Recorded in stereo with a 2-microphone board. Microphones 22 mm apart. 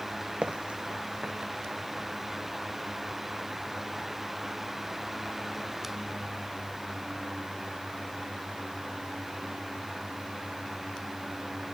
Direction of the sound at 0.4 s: 60° right (ahead or behind).